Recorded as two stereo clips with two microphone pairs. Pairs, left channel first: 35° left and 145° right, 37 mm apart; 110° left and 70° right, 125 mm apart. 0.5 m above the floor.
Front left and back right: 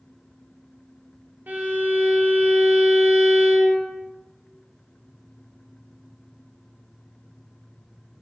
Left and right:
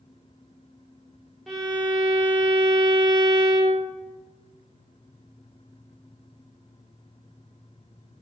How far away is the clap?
I don't hear a clap.